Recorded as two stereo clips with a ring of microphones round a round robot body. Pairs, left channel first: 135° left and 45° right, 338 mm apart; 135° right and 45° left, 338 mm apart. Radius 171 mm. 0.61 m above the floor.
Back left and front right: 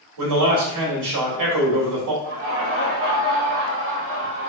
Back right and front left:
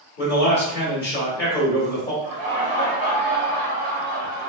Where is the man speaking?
75° right, 1.8 m.